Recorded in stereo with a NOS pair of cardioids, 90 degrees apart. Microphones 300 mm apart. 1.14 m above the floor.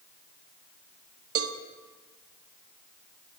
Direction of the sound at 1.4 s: 50° right.